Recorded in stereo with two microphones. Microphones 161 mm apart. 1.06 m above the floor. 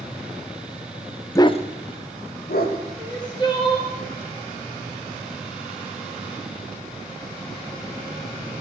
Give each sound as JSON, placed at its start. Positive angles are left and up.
{"t": 1.4, "sound": "a dog barking", "side_deg": 20, "distance_m": 0.5}
{"t": 3.0, "sound": "crying", "side_deg": 25, "distance_m": 2.0}